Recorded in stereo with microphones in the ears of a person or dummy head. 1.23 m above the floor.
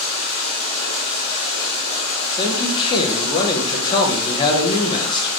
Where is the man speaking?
25° left (ahead or behind), 0.5 m.